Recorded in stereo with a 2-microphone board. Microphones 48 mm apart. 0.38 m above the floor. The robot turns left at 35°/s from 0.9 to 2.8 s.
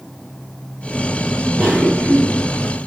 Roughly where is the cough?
Centre.